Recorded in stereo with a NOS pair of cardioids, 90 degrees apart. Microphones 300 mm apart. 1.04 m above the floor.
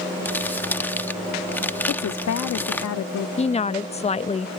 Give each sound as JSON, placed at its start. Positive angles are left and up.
{"t": 0.2, "sound": "crumpling", "azimuth_deg": 5}
{"t": 1.9, "sound": "a woman speaking", "azimuth_deg": 60}
{"t": 3.4, "sound": "a woman speaking", "azimuth_deg": 20}